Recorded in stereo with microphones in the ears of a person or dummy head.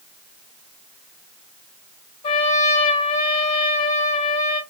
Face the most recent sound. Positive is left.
turn(degrees=25)  # may be behind; listen again after turning